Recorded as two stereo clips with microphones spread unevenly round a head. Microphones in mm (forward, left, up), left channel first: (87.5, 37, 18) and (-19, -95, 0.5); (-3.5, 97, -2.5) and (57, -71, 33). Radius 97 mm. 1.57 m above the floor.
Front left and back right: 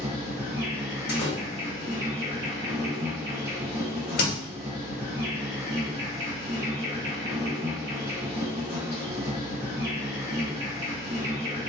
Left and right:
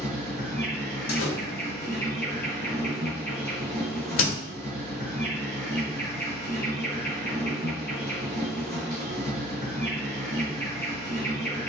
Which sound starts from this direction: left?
A door slam, at 1.1 s.